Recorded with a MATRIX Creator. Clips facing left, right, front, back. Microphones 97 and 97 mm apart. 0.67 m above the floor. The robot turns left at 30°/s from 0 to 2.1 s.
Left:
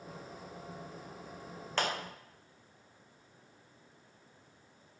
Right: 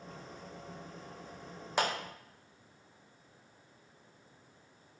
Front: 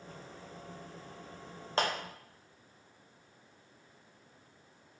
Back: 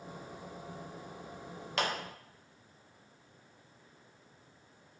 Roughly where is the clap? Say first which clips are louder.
Right 2 dB, front 2 dB; ahead.